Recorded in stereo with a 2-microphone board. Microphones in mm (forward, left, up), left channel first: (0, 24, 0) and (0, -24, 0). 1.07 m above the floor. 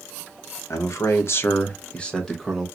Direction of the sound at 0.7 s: 75° left (ahead or behind).